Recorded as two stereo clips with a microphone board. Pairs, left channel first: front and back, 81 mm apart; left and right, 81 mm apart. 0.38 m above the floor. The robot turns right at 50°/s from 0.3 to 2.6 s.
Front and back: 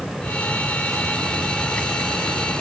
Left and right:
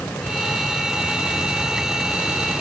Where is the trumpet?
I don't hear a trumpet.